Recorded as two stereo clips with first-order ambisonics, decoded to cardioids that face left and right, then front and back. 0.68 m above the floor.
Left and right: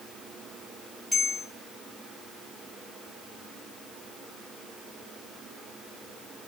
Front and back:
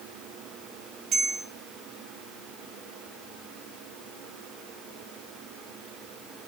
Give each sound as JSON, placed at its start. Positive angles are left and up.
{"t": 1.1, "sound": "a bell", "azimuth_deg": 175, "distance_m": 0.8}